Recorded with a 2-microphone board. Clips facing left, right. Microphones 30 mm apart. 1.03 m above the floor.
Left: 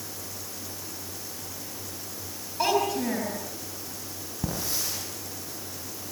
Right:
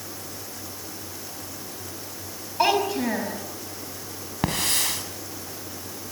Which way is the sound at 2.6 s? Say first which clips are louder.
Right 3 dB; 25° right (ahead or behind).